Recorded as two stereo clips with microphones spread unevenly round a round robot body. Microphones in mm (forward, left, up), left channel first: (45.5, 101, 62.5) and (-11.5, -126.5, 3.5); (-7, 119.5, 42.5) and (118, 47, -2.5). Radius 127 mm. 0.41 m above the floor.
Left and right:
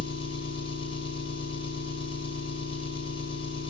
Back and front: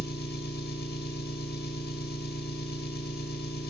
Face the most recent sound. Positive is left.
turn(degrees=150)